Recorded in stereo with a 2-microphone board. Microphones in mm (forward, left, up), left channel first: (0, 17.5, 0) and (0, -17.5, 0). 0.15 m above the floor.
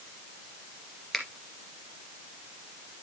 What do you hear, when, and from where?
1.1 s a finger snap: 10° left (ahead or behind), 2.5 m